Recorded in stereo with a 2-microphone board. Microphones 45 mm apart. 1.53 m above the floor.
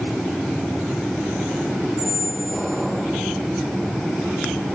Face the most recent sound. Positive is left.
turn(degrees=-10)  # may be behind; listen again after turning